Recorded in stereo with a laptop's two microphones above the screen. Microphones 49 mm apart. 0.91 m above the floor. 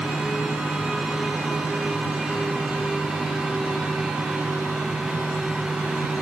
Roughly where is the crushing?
No crushing in this recording.